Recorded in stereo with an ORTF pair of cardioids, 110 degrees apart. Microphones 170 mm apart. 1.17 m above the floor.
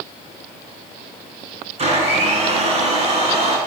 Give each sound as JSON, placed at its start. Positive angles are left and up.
{"t": 1.8, "sound": "a blender", "azimuth_deg": -40, "distance_m": 6.5}